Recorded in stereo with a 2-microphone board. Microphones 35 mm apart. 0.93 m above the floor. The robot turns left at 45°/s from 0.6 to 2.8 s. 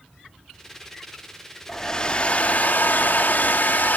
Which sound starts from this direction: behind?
A hair dryer, at 1.7 s.